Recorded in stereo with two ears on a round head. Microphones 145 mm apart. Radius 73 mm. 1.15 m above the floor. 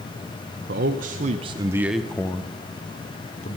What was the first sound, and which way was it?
A man speaking, 65° right (ahead or behind).